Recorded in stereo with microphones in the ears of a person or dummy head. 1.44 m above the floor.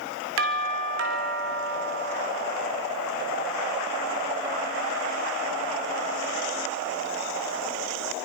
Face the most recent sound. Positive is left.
turn(degrees=-70)  # may be behind; listen again after turning